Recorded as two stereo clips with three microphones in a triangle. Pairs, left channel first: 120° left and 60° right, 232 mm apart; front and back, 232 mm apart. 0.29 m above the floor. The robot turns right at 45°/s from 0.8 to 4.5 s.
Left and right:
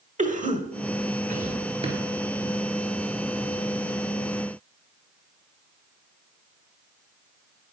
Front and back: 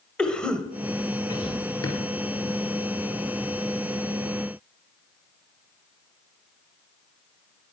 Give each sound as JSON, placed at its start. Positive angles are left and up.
{"t": 0.2, "sound": "a cough", "azimuth_deg": -85, "distance_m": 1.0}
{"t": 1.8, "sound": "a drawer", "azimuth_deg": 5, "distance_m": 3.5}